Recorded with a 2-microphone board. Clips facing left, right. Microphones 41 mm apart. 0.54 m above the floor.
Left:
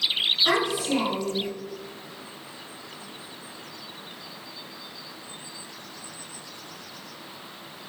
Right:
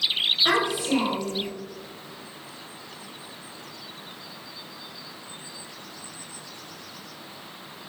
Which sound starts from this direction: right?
A child speaking, at 0.5 s.